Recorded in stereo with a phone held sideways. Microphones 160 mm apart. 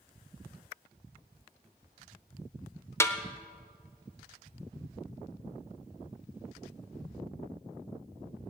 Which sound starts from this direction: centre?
A snare drum, at 3.0 s.